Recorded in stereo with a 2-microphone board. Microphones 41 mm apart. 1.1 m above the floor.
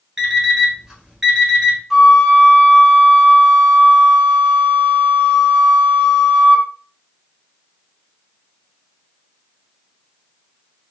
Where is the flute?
5° right (ahead or behind), 0.6 m.